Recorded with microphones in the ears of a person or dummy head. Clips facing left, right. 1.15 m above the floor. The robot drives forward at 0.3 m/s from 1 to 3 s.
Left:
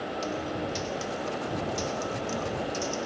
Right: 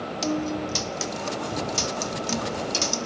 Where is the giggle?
No giggle in this recording.